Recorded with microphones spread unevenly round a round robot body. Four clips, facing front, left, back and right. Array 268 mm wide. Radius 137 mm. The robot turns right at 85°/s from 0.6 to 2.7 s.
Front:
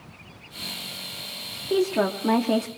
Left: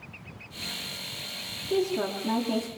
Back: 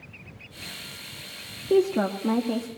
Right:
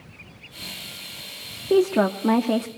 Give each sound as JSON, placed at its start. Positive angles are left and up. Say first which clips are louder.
{"t": 1.7, "sound": "a woman speaking", "louder": "right 8 dB, back 1 dB", "azimuth_deg": -115, "distance_m": 1.3}